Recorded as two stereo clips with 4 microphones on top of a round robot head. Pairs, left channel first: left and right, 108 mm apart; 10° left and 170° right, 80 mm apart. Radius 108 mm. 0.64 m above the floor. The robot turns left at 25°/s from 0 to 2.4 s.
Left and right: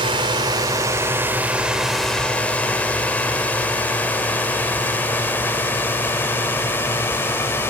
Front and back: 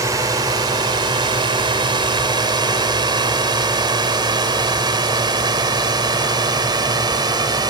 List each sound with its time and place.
0.0 s a drone: 125° right; by 7.7 s 160° left